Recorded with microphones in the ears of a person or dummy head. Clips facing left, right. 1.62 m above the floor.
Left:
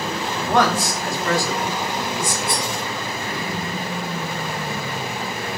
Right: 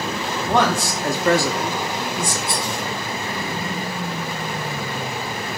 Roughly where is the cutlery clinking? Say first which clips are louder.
Left 1 dB; right.